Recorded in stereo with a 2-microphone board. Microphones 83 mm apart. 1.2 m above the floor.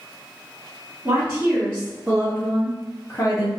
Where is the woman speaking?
30° right (ahead or behind), 1.5 m; by 3.5 s 50° left (ahead or behind), 0.7 m.